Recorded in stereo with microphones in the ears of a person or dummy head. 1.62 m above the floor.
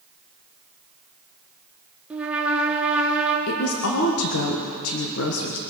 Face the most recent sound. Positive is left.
turn(degrees=80)